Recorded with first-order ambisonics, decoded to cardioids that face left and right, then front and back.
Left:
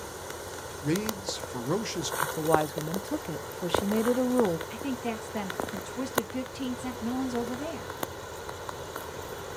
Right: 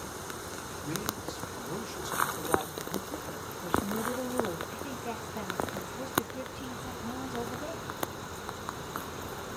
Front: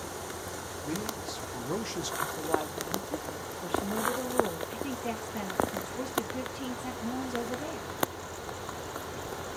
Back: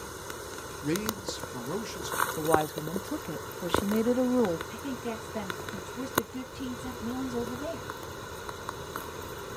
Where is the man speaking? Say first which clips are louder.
Left 7 dB, back 5 dB; 125° left, 0.8 m; by 2.3 s 65° left, 0.8 m.